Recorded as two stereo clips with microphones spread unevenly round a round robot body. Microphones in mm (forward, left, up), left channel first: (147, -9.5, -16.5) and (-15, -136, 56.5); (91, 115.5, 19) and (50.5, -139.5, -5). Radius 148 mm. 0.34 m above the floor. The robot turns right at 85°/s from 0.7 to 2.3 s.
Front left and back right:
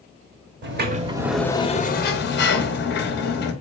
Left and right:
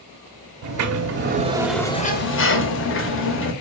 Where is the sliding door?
100° right, 0.7 m; by 3.5 s 40° left, 0.7 m.